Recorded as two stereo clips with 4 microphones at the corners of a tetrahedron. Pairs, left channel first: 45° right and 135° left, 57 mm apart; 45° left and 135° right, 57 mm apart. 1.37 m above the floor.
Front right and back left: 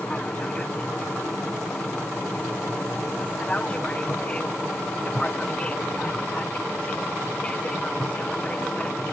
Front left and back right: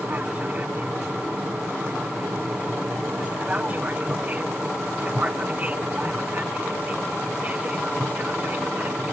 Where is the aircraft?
95° right.